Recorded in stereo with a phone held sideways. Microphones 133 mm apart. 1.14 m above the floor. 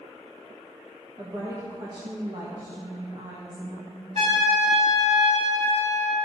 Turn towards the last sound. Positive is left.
turn(degrees=-60)  # may be behind; listen again after turning